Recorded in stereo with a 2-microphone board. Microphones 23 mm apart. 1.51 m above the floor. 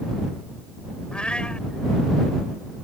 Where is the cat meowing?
50° left (ahead or behind).